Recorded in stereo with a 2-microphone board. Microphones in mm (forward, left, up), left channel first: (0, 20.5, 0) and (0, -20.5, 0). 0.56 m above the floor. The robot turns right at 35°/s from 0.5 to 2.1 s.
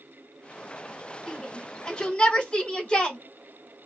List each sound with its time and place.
1.3 s a shout: 5° right (ahead or behind), 2.5 m; by 3.2 s 20° left (ahead or behind), 2.5 m